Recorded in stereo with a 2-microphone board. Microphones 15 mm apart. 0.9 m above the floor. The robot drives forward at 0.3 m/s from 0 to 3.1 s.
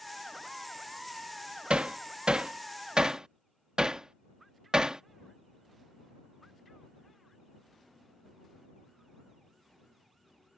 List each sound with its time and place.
1.7 s hammering: 80° right; by 5.0 s 50° right (ahead or behind)